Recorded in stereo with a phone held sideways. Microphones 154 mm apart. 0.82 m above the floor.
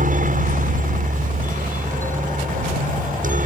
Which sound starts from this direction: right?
A helicopter, at 0.0 s.